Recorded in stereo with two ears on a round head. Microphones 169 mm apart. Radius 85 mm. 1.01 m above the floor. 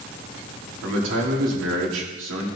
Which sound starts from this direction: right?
A man speaking, at 0.8 s.